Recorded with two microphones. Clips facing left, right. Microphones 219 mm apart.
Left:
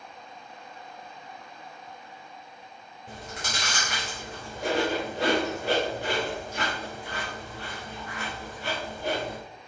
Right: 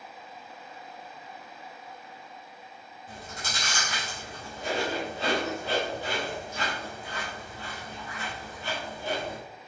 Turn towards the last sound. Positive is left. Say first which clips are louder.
# left 3 dB
turn(degrees=80)